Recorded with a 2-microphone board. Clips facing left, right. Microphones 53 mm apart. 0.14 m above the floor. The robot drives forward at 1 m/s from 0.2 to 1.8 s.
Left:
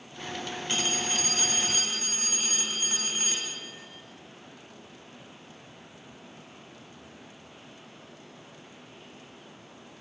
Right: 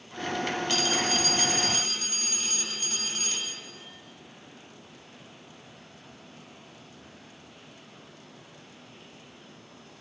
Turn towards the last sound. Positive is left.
turn(degrees=20)  # may be behind; listen again after turning